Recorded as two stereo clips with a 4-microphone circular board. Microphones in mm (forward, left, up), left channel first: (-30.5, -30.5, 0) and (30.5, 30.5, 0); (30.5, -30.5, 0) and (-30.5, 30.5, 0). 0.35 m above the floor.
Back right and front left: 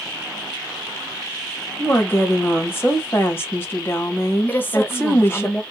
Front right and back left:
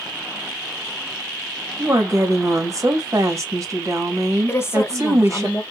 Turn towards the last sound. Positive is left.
turn(degrees=-80)